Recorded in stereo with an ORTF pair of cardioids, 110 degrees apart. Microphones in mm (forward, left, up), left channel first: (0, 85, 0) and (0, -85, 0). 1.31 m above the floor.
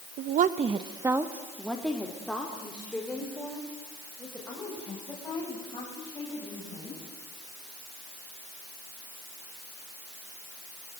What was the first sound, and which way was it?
A woman speaking, 65° right.